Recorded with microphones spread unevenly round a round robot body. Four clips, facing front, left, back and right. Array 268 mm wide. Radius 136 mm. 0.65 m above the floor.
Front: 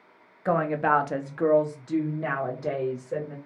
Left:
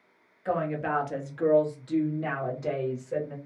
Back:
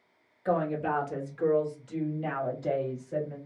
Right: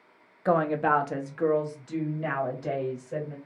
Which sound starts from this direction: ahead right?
A woman speaking, at 0.5 s.